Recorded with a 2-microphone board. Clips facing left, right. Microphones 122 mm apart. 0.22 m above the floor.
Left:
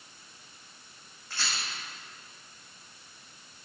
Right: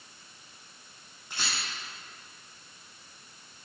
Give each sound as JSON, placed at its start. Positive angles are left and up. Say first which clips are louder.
{"t": 1.3, "sound": "a rattle", "louder": "even", "side_deg": -15, "distance_m": 5.0}